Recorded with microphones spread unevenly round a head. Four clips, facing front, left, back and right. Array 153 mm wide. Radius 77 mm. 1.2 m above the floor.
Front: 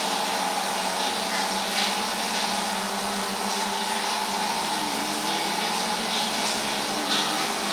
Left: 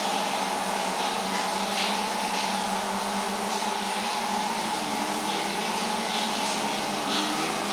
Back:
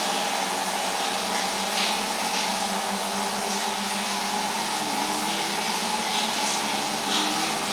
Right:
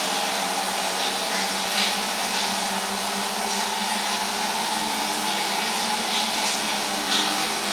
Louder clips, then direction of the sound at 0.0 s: Right 1 dB, even; 60° right.